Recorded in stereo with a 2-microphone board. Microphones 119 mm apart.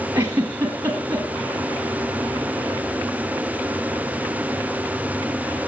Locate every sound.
0.1 s a giggle: 20° right (ahead or behind), 3.5 m